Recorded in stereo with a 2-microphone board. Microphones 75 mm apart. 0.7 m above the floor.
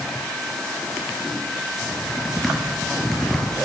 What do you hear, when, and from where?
1.8 s typing on a keyboard: 5° left (ahead or behind), 6.5 m